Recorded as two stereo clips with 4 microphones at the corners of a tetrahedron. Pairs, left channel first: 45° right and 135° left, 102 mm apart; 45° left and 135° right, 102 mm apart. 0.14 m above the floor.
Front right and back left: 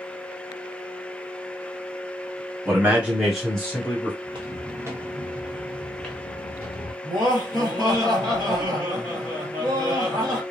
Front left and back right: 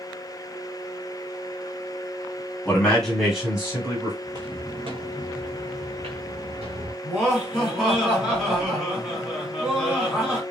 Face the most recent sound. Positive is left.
turn(degrees=145)